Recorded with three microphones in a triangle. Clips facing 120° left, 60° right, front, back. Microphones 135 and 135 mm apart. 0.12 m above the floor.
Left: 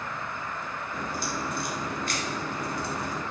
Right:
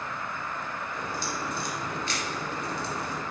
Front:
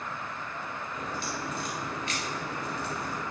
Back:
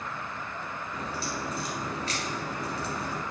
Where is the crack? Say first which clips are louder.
Left 3 dB, back 2 dB; 140° left, 2 m.